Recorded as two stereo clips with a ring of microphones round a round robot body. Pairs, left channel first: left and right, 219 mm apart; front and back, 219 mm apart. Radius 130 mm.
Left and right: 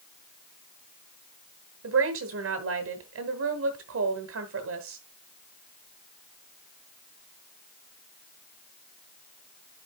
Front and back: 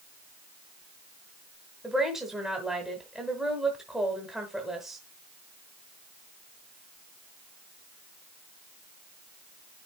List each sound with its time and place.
1.8 s a woman speaking: 90° right, 1.6 m